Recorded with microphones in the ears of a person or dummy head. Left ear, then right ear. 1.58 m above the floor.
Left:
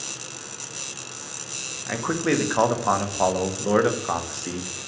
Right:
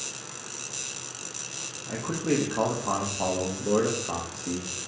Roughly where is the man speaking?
Left.